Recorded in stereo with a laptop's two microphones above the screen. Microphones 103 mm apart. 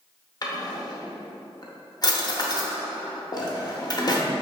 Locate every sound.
0.4 s a drawer: 40° left (ahead or behind), 0.6 m